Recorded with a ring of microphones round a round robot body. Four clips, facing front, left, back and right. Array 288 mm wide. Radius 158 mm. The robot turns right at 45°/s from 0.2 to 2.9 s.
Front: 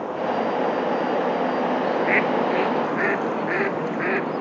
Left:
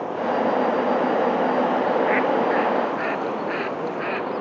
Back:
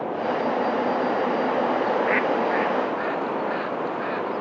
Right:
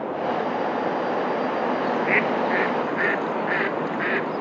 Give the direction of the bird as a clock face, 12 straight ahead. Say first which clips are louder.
Left 3 dB, front 1 dB; 2 o'clock.